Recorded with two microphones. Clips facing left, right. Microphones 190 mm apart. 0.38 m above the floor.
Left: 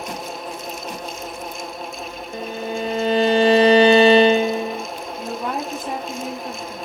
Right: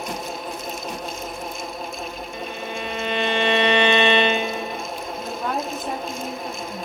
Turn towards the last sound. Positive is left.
turn(degrees=-5)  # may be behind; listen again after turning